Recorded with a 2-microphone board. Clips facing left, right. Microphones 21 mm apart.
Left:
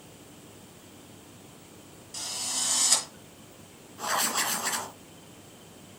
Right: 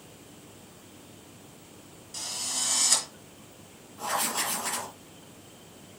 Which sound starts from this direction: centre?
A drill, at 2.1 s.